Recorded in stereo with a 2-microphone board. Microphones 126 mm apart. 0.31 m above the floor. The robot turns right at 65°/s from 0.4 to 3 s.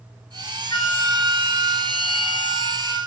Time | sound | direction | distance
0.7 | a flute | 145° left | 1.5 m